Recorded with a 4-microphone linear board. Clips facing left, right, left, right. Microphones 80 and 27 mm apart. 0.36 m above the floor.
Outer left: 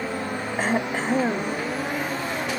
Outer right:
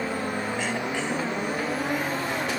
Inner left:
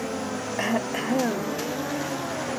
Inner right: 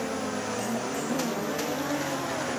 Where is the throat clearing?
40° left (ahead or behind).